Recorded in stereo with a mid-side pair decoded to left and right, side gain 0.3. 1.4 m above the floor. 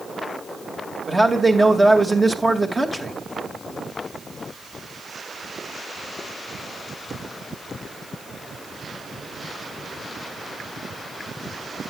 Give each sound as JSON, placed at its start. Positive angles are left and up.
{"t": 1.1, "sound": "a man speaking", "azimuth_deg": -30, "distance_m": 2.5}